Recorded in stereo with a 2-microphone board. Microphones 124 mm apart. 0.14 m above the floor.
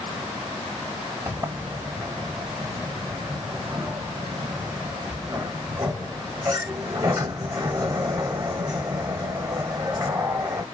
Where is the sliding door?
35° right (ahead or behind), 1.5 m.